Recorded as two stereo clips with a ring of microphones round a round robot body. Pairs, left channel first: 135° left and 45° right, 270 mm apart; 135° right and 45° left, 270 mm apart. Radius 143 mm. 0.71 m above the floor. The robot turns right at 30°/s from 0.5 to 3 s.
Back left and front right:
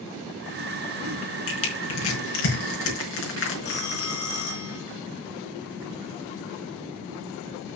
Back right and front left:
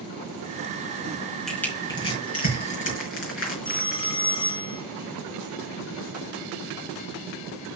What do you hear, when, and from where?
1.5 s crushing: 135° left, 5 m; by 4.1 s straight behind, 5 m
3.6 s a phone ringing: 155° left, 2.5 m